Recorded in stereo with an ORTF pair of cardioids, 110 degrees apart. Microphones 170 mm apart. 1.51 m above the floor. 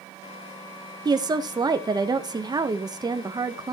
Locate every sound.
1.1 s a woman speaking: 25° right, 0.9 m